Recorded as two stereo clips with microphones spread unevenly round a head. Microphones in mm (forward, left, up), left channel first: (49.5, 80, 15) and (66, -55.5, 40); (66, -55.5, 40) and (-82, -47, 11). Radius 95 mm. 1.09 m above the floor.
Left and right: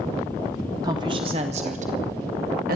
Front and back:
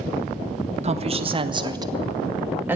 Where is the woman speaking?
155° right, 1.7 m; by 2.8 s 110° right, 2 m.